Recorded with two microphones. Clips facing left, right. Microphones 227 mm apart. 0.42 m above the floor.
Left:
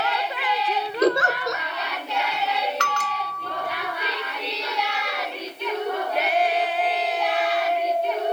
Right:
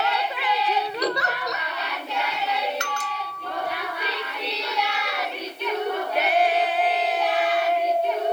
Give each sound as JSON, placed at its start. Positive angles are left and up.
{"t": 1.0, "sound": "a giggle", "side_deg": 45, "distance_m": 0.8}
{"t": 2.8, "sound": "a bell", "side_deg": 70, "distance_m": 0.8}